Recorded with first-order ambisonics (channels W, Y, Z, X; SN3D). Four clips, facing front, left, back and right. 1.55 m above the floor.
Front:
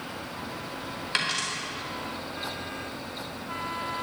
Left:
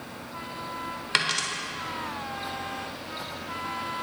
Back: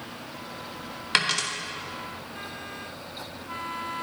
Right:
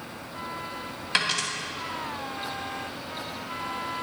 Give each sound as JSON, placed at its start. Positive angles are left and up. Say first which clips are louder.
{"t": 1.1, "sound": "a dropped coin", "louder": "even, back 4 dB", "azimuth_deg": 150, "distance_m": 1.3}